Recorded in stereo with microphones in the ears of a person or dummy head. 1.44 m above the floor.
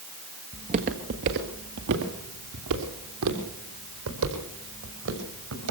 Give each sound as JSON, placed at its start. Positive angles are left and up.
{"t": 0.5, "sound": "footsteps", "side_deg": -25, "distance_m": 1.7}